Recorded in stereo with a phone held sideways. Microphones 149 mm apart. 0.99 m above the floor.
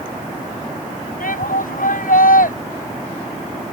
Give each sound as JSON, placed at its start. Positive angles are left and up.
{"t": 1.2, "sound": "a shout", "side_deg": 70}